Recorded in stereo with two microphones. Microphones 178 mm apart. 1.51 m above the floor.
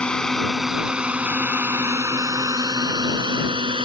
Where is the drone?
5° left (ahead or behind); by 3.9 s 30° right (ahead or behind).